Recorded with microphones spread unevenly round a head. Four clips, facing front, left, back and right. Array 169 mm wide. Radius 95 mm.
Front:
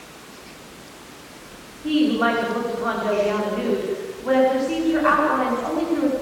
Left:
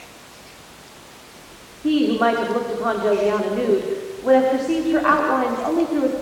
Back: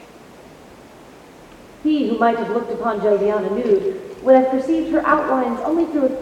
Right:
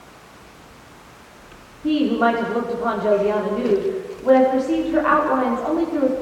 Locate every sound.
1.8 s a woman speaking: 160° left, 6 m